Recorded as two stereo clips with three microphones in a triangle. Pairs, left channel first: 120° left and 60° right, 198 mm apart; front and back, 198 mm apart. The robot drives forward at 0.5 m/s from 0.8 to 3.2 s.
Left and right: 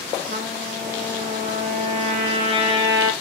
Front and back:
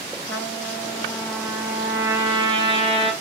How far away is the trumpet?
About 1.6 m.